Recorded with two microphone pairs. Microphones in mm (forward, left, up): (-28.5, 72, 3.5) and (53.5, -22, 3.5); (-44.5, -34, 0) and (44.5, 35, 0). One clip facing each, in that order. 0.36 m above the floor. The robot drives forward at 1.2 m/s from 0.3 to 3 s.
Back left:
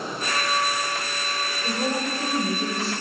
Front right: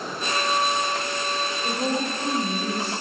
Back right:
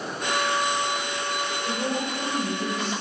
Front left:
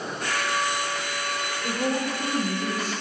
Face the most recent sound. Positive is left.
turn(degrees=170)